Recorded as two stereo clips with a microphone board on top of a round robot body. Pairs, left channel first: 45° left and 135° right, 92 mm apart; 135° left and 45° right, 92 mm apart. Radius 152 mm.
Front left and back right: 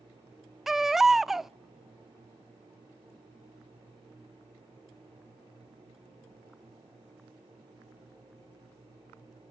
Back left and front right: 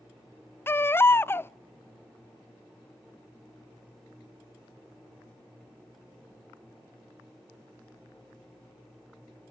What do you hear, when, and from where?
0.7 s a baby crying: 145° left, 0.5 m